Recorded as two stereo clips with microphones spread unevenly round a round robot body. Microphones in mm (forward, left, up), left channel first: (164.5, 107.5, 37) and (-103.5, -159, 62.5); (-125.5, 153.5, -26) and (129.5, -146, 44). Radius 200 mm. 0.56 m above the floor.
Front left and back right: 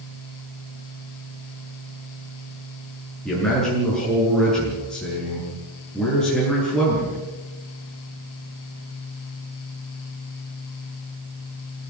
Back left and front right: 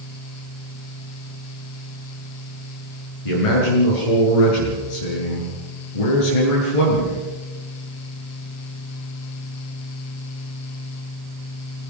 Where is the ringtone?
I don't hear a ringtone.